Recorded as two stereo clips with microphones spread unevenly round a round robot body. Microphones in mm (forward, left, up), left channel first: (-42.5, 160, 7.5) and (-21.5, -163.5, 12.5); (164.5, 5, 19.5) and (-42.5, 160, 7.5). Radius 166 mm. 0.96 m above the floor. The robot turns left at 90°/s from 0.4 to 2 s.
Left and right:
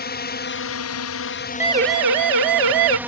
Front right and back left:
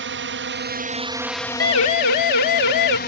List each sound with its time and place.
0.0 s a drone: 140° left; by 3.1 s 5° right
1.6 s a siren: straight ahead; by 3.0 s 65° right